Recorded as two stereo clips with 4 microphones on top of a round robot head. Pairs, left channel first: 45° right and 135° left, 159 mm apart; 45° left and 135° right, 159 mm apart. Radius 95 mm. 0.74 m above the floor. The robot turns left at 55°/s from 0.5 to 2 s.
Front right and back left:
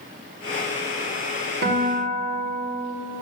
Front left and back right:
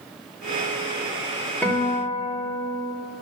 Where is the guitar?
125° left, 3 m; by 3.0 s 105° left, 3 m.